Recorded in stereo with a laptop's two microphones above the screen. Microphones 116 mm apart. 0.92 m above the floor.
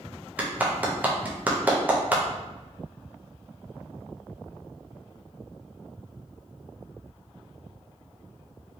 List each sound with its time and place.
0.4 s a clap: 15° right (ahead or behind), 0.5 m